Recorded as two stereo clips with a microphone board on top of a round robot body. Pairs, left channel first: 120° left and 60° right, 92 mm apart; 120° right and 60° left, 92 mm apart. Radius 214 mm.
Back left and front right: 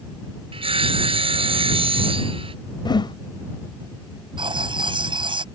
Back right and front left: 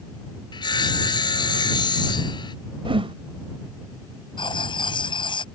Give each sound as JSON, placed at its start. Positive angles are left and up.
{"t": 0.5, "sound": "sawing", "azimuth_deg": -80}
{"t": 2.9, "sound": "a whoosh", "azimuth_deg": 80}
{"t": 4.4, "sound": "writing", "azimuth_deg": -90}